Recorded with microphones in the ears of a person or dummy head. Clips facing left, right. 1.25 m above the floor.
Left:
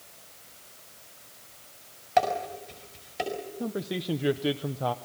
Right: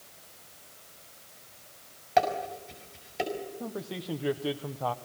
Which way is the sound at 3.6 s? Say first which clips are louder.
Left 5 dB; 25° left (ahead or behind).